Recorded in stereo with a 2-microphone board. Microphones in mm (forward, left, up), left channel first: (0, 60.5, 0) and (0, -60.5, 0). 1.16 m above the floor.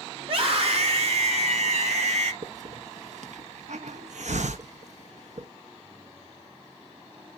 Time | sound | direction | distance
0.2 | a scream | 50° right (ahead or behind) | 3.5 m
2.4 | a hiss | 75° right (ahead or behind) | 0.8 m